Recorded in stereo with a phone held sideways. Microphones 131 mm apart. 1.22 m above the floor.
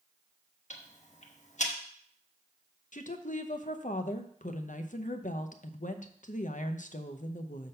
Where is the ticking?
65° left (ahead or behind), 1.0 m.